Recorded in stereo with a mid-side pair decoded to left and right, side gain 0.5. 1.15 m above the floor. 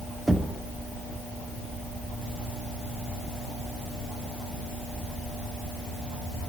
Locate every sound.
0.3 s knocking: 15° right, 1.8 m